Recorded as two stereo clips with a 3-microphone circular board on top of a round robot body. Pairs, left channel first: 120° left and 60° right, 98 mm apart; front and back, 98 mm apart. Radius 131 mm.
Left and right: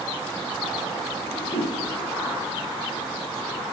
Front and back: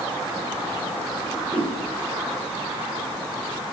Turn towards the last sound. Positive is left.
turn(degrees=110)